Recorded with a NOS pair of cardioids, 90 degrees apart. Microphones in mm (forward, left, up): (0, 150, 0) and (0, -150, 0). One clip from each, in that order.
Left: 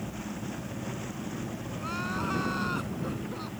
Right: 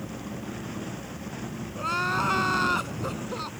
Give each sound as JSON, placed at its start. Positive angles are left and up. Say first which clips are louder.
{"t": 1.8, "sound": "crying", "louder": "right 8 dB", "azimuth_deg": -60}